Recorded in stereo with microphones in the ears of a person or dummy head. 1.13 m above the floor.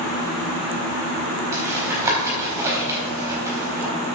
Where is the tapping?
10° right (ahead or behind), 4 m.